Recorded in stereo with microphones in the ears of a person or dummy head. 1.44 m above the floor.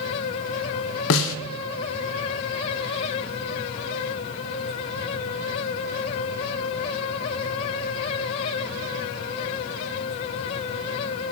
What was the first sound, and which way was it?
A snare drum, 70° left (ahead or behind).